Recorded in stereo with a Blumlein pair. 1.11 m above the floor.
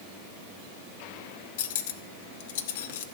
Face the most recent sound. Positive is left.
turn(degrees=55)